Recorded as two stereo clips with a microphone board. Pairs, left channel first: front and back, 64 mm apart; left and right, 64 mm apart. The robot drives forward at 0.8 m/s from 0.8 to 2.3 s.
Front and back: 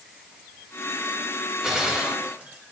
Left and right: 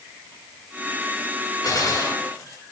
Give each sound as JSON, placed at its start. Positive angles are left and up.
{"t": 1.6, "sound": "a gunshot", "azimuth_deg": 100, "distance_m": 3.5}